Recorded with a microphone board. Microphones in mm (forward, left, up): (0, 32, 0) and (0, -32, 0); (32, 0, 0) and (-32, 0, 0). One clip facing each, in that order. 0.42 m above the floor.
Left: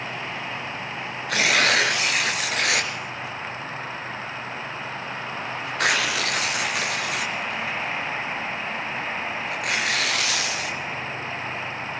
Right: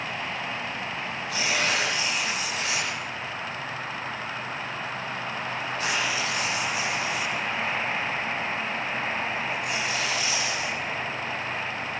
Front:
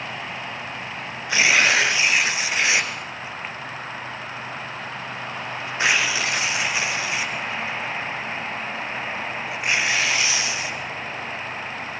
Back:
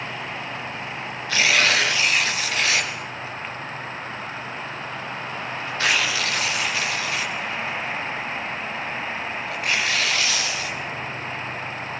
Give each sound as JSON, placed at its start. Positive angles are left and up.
{"t": 1.3, "sound": "tearing paper", "azimuth_deg": 70, "distance_m": 4.0}